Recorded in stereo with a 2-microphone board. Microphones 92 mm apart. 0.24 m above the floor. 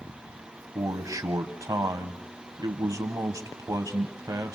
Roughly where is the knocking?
No knocking in this recording.